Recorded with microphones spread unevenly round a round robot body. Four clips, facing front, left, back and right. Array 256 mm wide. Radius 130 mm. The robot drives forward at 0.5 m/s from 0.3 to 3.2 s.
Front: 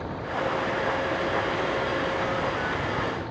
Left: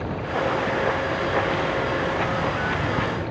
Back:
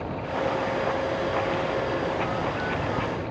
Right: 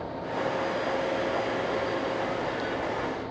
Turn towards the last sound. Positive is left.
turn(degrees=100)